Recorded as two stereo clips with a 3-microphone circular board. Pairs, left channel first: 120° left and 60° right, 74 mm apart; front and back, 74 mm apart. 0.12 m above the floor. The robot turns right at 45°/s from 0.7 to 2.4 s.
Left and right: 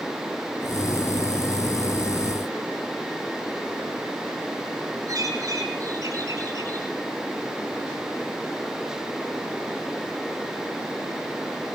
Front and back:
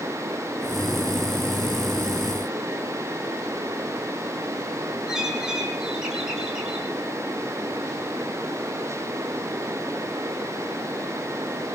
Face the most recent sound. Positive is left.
turn(degrees=-100)